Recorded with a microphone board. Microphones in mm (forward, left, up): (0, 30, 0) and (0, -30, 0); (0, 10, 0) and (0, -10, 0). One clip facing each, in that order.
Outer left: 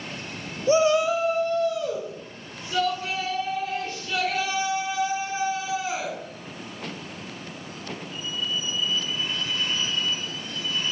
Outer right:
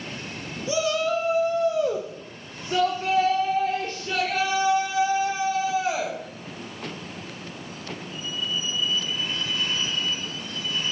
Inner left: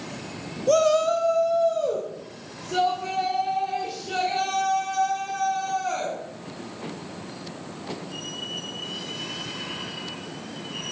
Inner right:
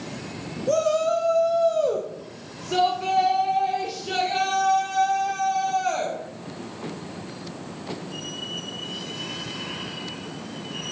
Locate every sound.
0.7 s a shout: 40° left (ahead or behind), 0.6 m; by 6.2 s 65° right (ahead or behind), 3.5 m